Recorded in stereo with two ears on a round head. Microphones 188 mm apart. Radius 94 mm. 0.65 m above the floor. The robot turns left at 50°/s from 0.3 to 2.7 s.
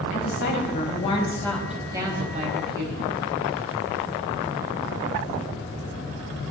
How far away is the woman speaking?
About 4 m.